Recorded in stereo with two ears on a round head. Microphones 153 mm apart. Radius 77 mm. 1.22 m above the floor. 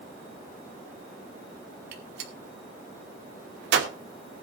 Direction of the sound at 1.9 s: 75° right (ahead or behind).